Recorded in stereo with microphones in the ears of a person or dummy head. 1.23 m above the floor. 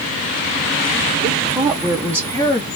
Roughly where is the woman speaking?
Right.